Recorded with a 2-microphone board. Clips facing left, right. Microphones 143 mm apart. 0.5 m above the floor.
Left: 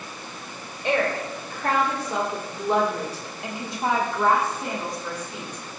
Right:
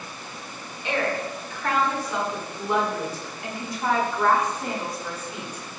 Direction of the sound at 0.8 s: 50° left (ahead or behind).